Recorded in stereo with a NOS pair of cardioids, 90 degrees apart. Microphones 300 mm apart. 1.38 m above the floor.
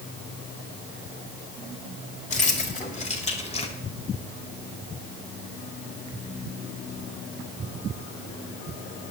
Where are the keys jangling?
25° left, 4 m; by 3.7 s 20° left, 2.5 m.